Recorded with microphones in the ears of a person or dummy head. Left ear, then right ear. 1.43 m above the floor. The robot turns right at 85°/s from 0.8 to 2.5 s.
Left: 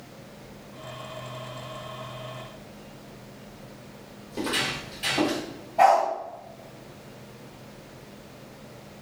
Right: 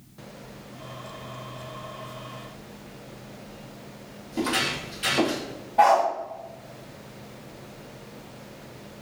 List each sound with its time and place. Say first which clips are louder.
4.3 s footsteps: right 2 dB; 5° right (ahead or behind), 1.5 m
5.8 s a dog barking: even; 20° right (ahead or behind), 0.9 m